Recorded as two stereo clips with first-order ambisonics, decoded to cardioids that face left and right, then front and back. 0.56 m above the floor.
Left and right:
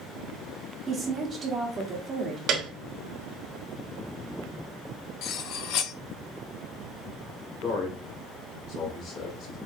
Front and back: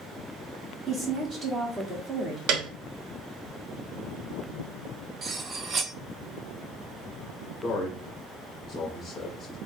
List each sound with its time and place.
0.9 s a woman speaking: 145° right, 1.2 m
2.5 s a piano: 145° right, 0.9 m
5.2 s cutlery clinking: 115° left, 0.6 m
7.6 s a man speaking: 80° left, 1.7 m